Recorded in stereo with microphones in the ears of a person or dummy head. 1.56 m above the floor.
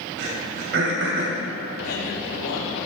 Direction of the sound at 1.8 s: 75° left (ahead or behind).